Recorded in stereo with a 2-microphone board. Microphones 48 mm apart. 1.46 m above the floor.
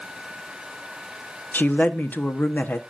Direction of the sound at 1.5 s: 40° left (ahead or behind).